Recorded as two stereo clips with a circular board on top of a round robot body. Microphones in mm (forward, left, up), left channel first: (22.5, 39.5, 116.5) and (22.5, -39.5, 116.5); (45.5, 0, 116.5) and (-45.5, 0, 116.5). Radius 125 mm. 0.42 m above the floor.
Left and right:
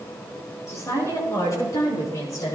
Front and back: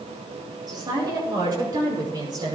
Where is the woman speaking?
140° left, 6.5 m; by 2.6 s 135° left, 8 m.